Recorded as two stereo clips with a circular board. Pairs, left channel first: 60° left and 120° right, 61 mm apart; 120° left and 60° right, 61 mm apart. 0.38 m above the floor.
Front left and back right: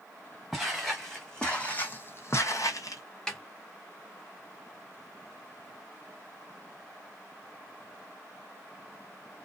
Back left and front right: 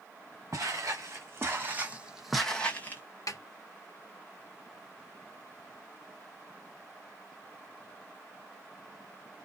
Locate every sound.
0.5 s footsteps: 30° right, 1.4 m; by 3.0 s 70° left, 0.7 m
3.3 s a snare drum: 140° left, 0.7 m